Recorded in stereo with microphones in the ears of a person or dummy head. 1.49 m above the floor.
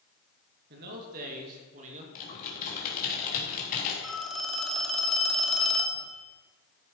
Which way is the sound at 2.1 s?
60° left (ahead or behind).